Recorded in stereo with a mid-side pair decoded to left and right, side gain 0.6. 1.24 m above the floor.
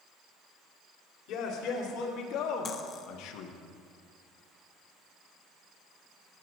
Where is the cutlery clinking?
45° left, 0.9 m.